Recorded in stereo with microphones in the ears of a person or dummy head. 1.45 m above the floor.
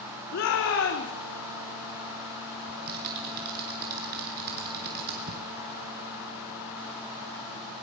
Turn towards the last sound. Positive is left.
turn(degrees=-55)  # may be behind; listen again after turning